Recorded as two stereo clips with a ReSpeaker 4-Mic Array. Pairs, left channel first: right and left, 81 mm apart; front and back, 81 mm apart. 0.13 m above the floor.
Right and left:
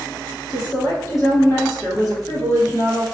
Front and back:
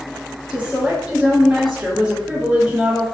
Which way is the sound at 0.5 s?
105° right.